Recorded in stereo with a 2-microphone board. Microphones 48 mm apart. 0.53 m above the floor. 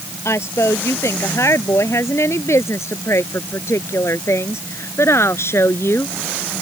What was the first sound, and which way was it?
A woman speaking, 80° left.